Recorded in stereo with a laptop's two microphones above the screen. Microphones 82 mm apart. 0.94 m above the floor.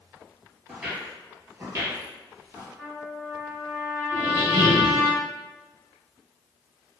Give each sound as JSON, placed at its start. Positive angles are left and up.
{"t": 0.7, "sound": "footsteps", "side_deg": -5, "distance_m": 0.9}
{"t": 2.8, "sound": "a trumpet", "side_deg": -10, "distance_m": 1.3}
{"t": 4.1, "sound": "a squeak", "side_deg": 45, "distance_m": 1.0}